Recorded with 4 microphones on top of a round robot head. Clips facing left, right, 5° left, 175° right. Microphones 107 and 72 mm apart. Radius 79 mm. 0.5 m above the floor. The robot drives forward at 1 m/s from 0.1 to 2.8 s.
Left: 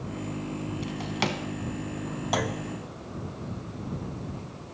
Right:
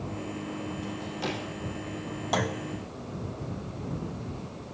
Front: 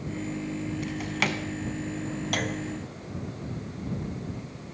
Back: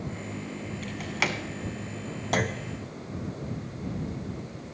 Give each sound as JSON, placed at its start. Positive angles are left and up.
{"t": 0.8, "sound": "a drawer", "azimuth_deg": 80, "distance_m": 1.4}
{"t": 2.3, "sound": "a clunk", "azimuth_deg": 180, "distance_m": 1.0}